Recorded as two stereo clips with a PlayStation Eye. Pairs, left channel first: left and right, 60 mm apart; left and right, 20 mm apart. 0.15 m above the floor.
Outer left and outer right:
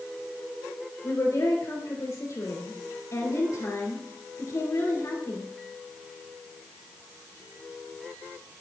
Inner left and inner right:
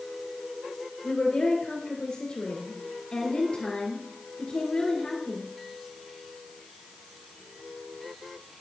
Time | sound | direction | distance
1.0 | a woman speaking | 55° left (ahead or behind) | 2.5 m